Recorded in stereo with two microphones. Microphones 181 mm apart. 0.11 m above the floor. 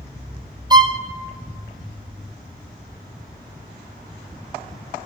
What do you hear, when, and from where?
0.7 s a violin: 25° right (ahead or behind), 0.6 m